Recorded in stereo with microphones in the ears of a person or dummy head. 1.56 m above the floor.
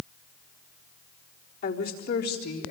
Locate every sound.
1.6 s a woman speaking: 55° left (ahead or behind), 3.5 m; by 2.7 s 65° left (ahead or behind), 3 m